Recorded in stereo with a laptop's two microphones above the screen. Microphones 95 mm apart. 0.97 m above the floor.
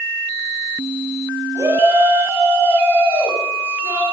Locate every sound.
1.6 s a shout: 30° right (ahead or behind), 6.5 m; by 4.0 s 20° right (ahead or behind), 8.5 m